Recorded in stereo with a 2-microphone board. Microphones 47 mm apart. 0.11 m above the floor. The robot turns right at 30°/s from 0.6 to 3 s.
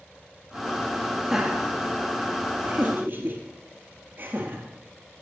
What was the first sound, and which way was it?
Laughter, 10° right (ahead or behind).